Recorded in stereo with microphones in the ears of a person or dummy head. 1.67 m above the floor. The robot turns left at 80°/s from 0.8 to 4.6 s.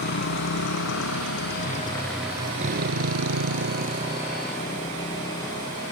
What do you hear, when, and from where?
0.0 s a motorcycle: 55° left (ahead or behind); by 5.9 s 20° left (ahead or behind)